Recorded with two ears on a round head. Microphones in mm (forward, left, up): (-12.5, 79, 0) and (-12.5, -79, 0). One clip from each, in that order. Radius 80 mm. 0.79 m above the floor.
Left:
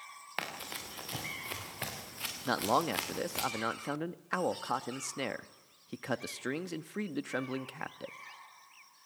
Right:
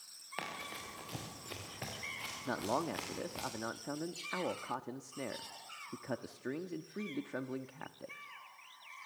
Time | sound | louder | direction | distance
0.4 | running footsteps | left 4 dB | 30° left (ahead or behind) | 6 m
2.5 | a man speaking | left 7 dB | 65° left (ahead or behind) | 0.8 m